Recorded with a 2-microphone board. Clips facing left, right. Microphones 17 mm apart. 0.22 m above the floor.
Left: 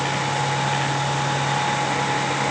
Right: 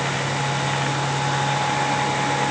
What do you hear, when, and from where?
Only background noise.